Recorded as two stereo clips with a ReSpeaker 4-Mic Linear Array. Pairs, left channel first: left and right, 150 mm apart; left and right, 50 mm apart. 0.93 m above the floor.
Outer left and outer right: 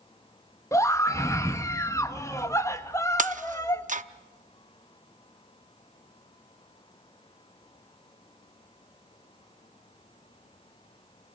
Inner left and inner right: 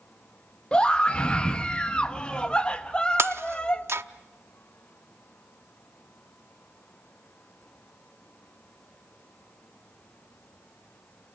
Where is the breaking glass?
55° right (ahead or behind), 0.6 m.